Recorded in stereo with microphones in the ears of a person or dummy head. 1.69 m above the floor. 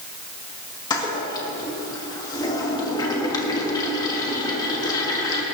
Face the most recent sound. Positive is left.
turn(degrees=20)  # may be behind; listen again after turning